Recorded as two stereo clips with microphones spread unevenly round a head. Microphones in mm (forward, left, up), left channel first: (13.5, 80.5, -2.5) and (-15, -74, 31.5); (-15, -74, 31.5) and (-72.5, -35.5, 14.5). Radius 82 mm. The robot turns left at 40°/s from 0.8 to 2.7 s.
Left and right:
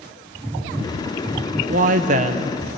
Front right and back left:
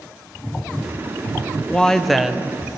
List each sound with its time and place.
1.7 s a woman speaking: 100° right, 0.7 m; by 2.6 s 135° right, 0.7 m